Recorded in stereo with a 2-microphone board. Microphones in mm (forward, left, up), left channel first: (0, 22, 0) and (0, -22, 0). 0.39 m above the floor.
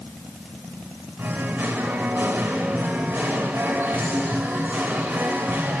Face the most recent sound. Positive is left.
turn(degrees=-50)  # may be behind; listen again after turning